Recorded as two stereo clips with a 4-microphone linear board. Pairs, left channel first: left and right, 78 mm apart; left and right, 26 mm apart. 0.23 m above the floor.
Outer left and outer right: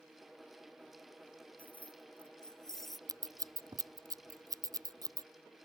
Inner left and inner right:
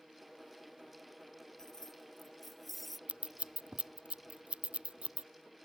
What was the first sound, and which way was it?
Keys jangling, 20° left (ahead or behind).